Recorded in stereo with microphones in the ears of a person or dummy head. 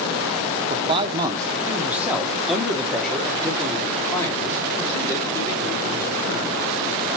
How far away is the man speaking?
About 1.2 m.